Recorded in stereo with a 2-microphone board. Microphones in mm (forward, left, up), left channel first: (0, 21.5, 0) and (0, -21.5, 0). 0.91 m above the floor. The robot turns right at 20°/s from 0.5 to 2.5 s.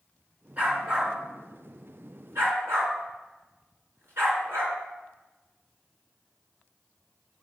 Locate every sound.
0.6 s a dog barking: 30° right (ahead or behind), 3 m; by 4.8 s 70° right (ahead or behind), 3 m